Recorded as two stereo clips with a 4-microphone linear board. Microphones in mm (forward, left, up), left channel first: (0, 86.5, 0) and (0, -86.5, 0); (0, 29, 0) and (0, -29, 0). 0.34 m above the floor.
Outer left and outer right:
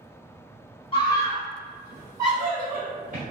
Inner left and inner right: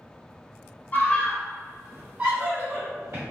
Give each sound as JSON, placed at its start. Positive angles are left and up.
{"t": 0.9, "sound": "a scream", "side_deg": 30, "distance_m": 1.6}